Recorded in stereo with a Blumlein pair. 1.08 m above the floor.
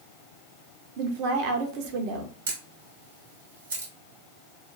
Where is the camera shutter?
65° right, 1.5 m.